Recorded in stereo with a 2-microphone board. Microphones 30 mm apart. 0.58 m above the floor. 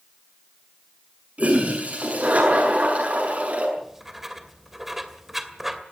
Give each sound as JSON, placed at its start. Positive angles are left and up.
{"t": 1.4, "sound": "a toilet flushing", "side_deg": -55, "distance_m": 7.0}
{"t": 3.8, "sound": "writing", "side_deg": -10, "distance_m": 2.0}